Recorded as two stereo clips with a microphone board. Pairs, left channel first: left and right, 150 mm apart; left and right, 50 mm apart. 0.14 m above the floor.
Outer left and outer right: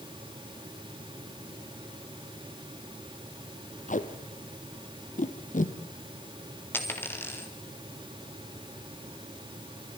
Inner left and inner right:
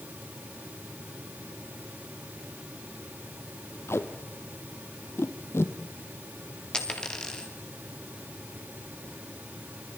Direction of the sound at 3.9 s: 60° left (ahead or behind).